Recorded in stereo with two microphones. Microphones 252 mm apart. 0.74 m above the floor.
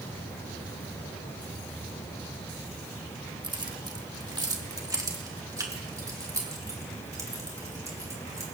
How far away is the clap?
I don't hear a clap.